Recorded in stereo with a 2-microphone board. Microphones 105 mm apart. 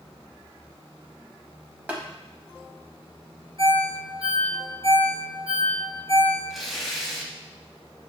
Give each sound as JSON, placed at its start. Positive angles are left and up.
{"t": 1.9, "sound": "tapping", "side_deg": -15, "distance_m": 0.9}
{"t": 3.6, "sound": "a ringtone", "side_deg": -60, "distance_m": 1.5}
{"t": 6.5, "sound": "tearing paper", "side_deg": 0, "distance_m": 0.8}